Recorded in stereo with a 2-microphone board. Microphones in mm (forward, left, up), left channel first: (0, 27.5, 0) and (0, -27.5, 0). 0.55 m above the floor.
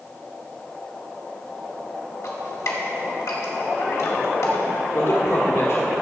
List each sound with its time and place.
2.2 s dripping: 75° left (ahead or behind), 1.9 m
4.9 s a man speaking: 55° left (ahead or behind), 1.5 m